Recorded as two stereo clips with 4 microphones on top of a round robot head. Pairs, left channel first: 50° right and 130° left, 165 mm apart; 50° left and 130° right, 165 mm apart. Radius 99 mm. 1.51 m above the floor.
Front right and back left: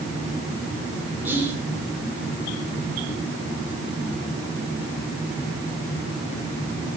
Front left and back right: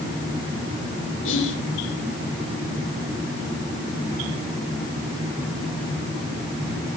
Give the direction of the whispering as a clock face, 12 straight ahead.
10 o'clock.